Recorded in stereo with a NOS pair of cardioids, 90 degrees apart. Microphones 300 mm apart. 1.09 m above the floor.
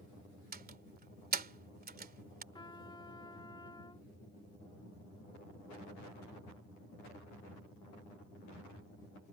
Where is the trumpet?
15° left.